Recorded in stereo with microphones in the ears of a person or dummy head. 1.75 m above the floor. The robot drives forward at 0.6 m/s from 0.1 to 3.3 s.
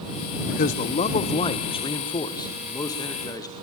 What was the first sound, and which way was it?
A man speaking, 40° left (ahead or behind).